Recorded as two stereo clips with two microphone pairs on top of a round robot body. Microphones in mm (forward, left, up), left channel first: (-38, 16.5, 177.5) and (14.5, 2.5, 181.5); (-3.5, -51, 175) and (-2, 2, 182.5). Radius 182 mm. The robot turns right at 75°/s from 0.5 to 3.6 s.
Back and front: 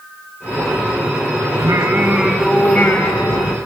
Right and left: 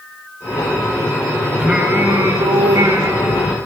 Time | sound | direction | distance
1.6 | singing | 10° left | 0.9 m